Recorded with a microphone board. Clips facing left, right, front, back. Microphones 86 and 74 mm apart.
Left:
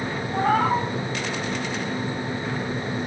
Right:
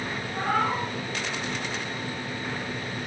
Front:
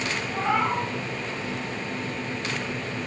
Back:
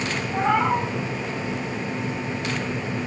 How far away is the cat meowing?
About 3 m.